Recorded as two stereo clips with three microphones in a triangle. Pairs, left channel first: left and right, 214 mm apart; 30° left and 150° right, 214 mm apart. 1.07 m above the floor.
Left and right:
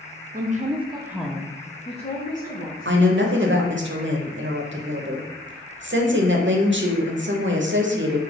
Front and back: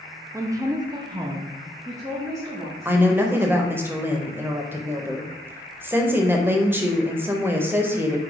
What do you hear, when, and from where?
0.3 s a woman speaking: 75° right, 0.6 m; by 3.8 s 130° left, 1.5 m
2.9 s a woman speaking: 70° right, 0.6 m